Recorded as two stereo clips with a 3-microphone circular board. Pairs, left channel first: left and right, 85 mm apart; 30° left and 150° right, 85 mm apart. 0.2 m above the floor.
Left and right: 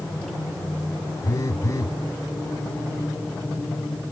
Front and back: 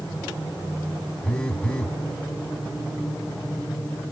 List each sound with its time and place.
1.2 s a phone buzzing: 100° left, 0.8 m